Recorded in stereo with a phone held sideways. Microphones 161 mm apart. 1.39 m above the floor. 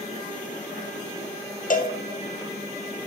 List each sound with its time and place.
1.7 s a cowbell: 55° left (ahead or behind), 0.6 m